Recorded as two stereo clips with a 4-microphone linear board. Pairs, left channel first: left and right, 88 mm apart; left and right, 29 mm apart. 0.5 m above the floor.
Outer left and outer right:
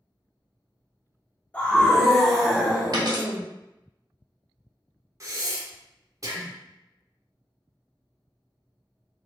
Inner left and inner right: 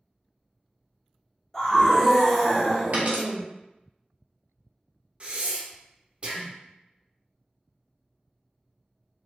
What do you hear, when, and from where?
1.5 s a scream: 15° left (ahead or behind), 0.7 m; by 3.4 s 15° right (ahead or behind), 1.3 m
2.9 s a dropped coin: 55° right (ahead or behind), 1.2 m
5.2 s breathing: 40° right (ahead or behind), 0.7 m